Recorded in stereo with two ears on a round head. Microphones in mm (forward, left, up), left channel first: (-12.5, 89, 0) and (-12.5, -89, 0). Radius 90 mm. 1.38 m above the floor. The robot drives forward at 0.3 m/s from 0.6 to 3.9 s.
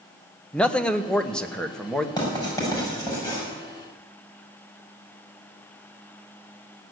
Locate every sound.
0.5 s a man speaking: 5° left (ahead or behind), 0.9 m
2.2 s writing: 20° left (ahead or behind), 7 m